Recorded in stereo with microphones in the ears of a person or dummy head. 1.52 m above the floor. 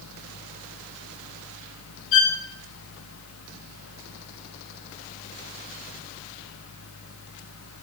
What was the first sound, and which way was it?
A fan, 80° left.